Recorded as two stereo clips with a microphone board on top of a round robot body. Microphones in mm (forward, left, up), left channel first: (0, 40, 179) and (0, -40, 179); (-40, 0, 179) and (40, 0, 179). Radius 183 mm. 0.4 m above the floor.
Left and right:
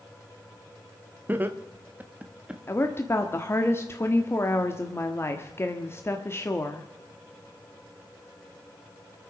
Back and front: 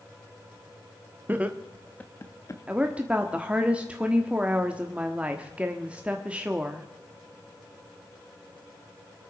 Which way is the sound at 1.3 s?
45° right.